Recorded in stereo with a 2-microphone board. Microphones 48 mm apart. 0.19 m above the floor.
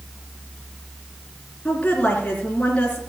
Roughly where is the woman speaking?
Left.